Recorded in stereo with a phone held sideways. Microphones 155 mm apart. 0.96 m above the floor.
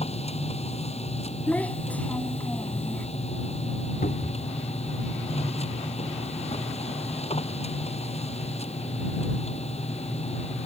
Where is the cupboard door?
70° left (ahead or behind).